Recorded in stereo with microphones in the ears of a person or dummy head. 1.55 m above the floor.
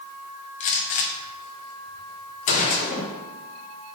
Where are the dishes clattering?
No dishes clattering in this recording.